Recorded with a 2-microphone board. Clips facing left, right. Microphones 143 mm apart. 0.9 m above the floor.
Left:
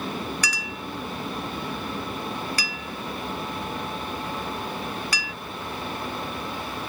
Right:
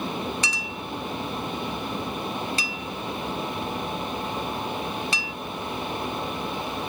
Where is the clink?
25° right (ahead or behind), 0.5 m.